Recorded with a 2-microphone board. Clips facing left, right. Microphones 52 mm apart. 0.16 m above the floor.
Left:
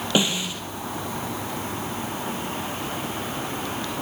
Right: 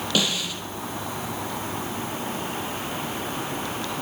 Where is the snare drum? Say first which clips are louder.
Left 3 dB; 25° left (ahead or behind), 3 m.